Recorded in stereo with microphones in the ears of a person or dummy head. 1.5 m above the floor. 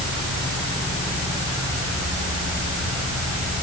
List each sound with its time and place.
Only background noise.